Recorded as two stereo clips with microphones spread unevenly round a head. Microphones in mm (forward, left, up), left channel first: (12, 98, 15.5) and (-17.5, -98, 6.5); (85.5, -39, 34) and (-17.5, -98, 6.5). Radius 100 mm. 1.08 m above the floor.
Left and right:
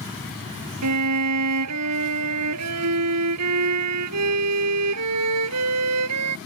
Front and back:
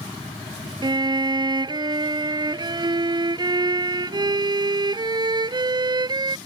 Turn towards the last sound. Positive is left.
turn(degrees=-95)